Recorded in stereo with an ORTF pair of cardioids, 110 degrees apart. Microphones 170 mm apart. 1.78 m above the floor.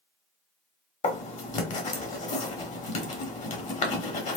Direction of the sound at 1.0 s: 45° left.